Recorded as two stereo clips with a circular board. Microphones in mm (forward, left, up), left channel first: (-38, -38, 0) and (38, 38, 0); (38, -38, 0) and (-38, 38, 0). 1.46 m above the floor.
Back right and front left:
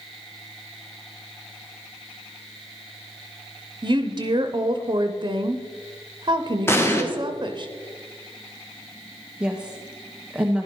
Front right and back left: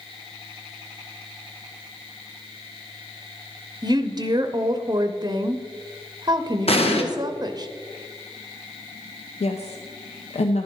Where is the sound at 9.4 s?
35° right, 0.8 m.